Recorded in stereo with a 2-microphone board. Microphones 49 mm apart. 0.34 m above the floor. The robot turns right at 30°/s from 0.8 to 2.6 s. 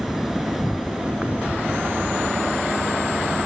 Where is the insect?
175° right; by 3.5 s 120° right.